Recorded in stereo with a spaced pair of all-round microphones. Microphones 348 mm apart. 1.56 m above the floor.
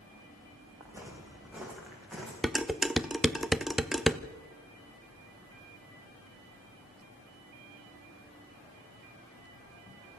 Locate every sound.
0.8 s footsteps: 10° right (ahead or behind), 7 m; by 2.3 s centre (ahead or behind), 7.5 m
2.4 s dishes clattering: centre (ahead or behind), 0.8 m